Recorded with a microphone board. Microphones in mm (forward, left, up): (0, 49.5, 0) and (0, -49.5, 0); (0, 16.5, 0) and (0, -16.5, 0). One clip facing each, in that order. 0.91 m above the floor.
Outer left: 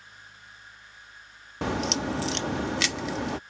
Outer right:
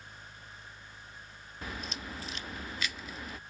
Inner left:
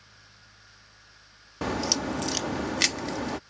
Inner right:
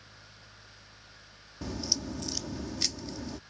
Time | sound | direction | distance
1.6 | a crack | 80° left | ?